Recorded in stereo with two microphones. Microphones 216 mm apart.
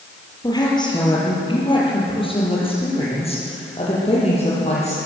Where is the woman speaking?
20° left (ahead or behind), 7.5 m; by 5.0 s 30° left (ahead or behind), 10.5 m.